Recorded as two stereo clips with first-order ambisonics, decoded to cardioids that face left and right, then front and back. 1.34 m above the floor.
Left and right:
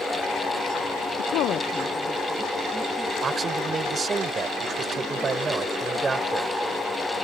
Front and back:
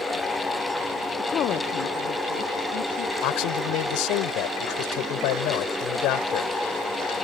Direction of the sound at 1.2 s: 75° left.